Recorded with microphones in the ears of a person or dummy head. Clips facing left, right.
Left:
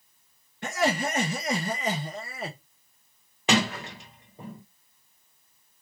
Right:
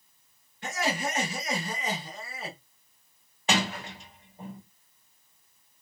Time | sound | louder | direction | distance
0.6 | laughter | left 4 dB | 40° left (ahead or behind) | 0.7 m
3.5 | a sliding door | left 4 dB | 50° left (ahead or behind) | 1.4 m